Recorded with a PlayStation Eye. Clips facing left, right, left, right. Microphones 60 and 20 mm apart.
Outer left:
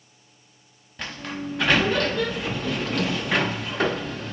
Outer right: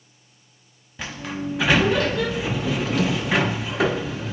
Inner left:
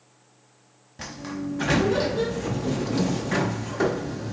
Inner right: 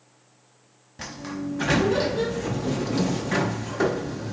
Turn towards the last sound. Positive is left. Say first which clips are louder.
# outer right 2 dB, even
turn(degrees=-5)  # may be behind; listen again after turning